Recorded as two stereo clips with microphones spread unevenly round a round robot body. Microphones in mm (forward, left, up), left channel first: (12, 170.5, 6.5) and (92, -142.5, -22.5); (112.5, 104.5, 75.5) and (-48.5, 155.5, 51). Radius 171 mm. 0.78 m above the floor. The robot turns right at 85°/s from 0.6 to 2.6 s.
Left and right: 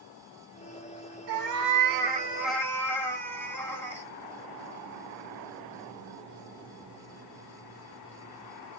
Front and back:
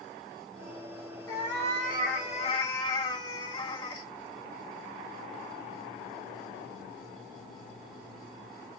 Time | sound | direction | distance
1.3 | a cat meowing | 85° right | 0.9 m